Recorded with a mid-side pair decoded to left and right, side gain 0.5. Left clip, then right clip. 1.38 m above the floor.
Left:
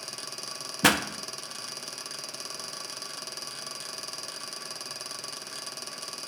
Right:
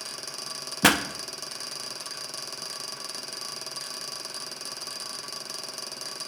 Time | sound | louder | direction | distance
0.8 | a pop | right 2 dB | 15° right | 0.6 m